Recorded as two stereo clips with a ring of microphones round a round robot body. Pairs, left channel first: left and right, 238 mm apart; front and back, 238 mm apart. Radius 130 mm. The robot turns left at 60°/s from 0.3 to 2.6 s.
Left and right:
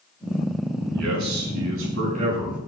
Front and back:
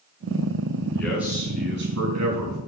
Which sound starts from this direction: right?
A man speaking, at 0.9 s.